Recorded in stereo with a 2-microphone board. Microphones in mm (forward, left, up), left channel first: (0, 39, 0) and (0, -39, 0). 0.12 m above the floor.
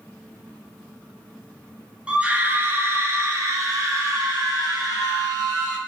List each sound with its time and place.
2.1 s a scream: 15° right (ahead or behind), 1.2 m; by 5.8 s 65° right (ahead or behind), 2.5 m